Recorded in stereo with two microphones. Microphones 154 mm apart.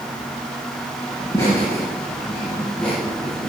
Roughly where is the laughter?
Centre.